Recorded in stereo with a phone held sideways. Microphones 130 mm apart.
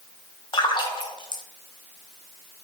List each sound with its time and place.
0.5 s a splash: 35° left (ahead or behind), 0.6 m